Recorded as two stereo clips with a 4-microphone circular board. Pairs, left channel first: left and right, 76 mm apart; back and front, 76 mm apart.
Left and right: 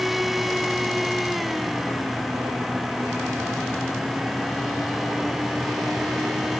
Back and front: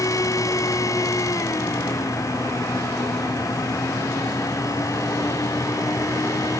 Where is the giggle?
I don't hear a giggle.